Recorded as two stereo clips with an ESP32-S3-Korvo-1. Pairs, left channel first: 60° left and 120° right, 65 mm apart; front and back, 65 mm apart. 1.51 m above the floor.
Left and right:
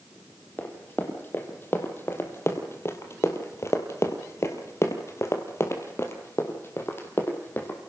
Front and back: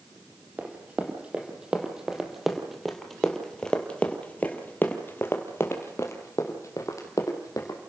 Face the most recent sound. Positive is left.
turn(degrees=5)